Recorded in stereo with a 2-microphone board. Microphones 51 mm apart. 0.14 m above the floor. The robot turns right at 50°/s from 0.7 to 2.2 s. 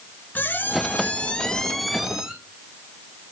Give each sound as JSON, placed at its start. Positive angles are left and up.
{"t": 0.3, "sound": "a squeak", "azimuth_deg": 120, "distance_m": 0.8}